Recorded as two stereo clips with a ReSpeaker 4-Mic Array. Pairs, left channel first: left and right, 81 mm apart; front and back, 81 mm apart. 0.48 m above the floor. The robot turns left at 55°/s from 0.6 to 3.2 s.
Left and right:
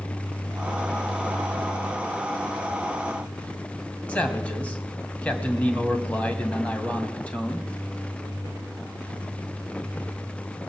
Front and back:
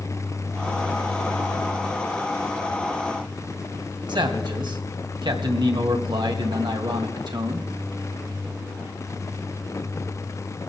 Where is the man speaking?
165° left, 2.5 m.